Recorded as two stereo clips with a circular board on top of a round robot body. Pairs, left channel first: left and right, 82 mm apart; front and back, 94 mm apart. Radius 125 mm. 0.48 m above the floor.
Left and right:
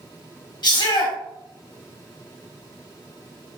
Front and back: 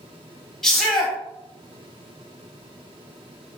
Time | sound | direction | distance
0.6 | a shout | 85° left | 1.8 m